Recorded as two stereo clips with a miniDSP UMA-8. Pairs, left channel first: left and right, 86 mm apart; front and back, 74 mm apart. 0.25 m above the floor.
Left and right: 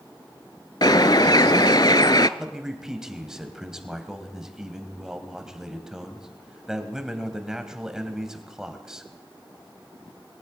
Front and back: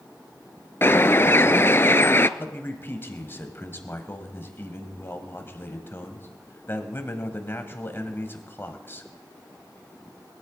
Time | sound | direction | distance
0.8 | a bird | 55° left | 0.5 m
2.4 | a man speaking | 15° right | 1.5 m